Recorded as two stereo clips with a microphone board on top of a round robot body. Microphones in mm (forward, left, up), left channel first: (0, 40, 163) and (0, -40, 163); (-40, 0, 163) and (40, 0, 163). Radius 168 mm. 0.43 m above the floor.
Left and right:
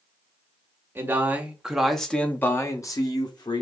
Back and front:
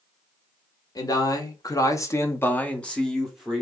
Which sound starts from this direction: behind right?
A man speaking, at 0.9 s.